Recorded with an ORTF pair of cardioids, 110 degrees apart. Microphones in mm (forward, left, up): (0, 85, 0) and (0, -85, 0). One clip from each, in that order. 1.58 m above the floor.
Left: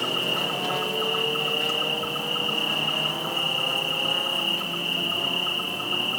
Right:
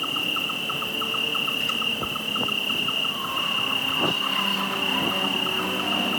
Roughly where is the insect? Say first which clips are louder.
Even; ahead right.